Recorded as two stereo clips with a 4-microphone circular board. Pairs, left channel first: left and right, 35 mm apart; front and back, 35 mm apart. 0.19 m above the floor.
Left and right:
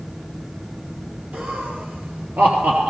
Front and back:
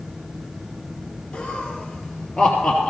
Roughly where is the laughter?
Ahead right.